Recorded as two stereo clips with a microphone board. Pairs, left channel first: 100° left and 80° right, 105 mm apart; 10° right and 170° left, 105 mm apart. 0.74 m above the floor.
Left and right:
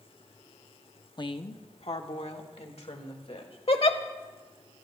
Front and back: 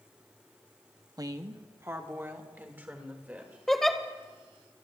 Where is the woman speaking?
125° left, 0.7 m; by 3.6 s 95° left, 2.5 m.